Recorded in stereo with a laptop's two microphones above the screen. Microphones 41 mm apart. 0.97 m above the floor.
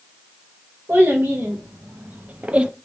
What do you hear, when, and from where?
0.9 s a child speaking: 60° right (ahead or behind), 1.0 m; by 2.7 s 25° right (ahead or behind), 0.5 m